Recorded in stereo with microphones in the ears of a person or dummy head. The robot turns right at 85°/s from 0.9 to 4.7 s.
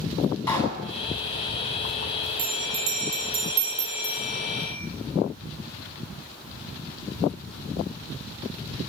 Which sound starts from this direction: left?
A pop, at 0.5 s.